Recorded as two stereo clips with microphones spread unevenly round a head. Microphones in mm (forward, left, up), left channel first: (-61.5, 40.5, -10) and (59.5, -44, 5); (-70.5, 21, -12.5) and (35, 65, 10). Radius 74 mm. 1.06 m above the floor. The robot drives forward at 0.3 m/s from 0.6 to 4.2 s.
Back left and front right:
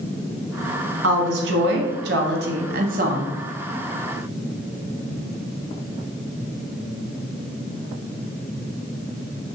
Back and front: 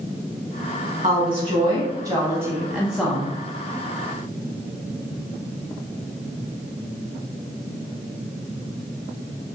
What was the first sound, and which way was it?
A woman speaking, 35° right.